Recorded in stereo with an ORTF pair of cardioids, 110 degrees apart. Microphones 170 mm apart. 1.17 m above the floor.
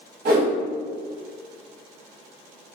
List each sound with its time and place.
0.2 s a whoosh: 65° right, 1.1 m